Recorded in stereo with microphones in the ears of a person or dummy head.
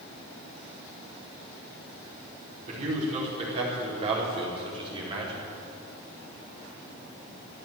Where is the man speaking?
45° right (ahead or behind), 5.5 m; by 5.5 s 30° right (ahead or behind), 4 m.